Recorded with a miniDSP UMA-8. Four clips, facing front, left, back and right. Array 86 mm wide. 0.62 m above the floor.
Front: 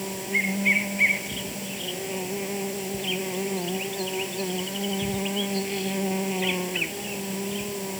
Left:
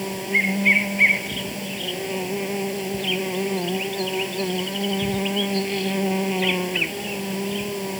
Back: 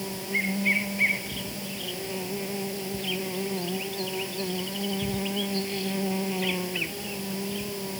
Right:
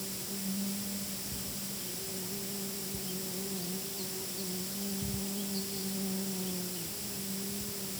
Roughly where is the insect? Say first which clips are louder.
Left 16 dB, front 2 dB; left.